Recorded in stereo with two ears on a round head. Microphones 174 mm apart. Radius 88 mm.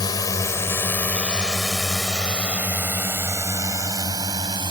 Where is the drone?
20° left (ahead or behind); by 4.7 s 25° right (ahead or behind).